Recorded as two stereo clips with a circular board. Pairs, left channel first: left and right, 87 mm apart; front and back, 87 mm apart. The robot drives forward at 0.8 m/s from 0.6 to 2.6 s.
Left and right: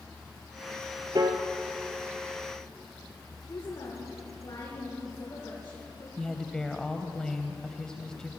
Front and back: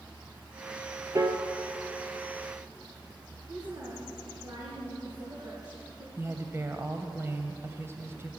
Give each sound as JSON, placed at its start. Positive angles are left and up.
{"t": 1.1, "sound": "a piano", "azimuth_deg": -130, "distance_m": 1.3}
{"t": 3.5, "sound": "a woman speaking", "azimuth_deg": 135, "distance_m": 5.0}
{"t": 6.2, "sound": "a woman speaking", "azimuth_deg": 165, "distance_m": 1.4}